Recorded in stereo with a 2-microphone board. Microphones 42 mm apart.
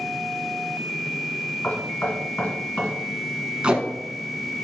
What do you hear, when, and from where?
1.6 s knocking: 45° left (ahead or behind), 1.8 m
3.6 s tape being pulled: 25° right (ahead or behind), 0.7 m